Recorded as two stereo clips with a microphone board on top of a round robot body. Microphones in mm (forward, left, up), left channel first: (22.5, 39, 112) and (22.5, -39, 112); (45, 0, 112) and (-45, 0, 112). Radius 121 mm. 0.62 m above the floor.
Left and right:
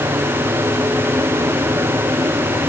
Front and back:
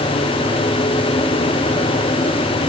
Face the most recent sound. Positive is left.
No sound to turn to.